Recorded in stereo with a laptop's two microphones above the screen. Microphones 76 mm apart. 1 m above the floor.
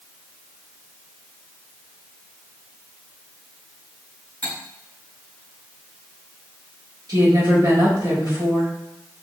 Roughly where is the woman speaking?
Right.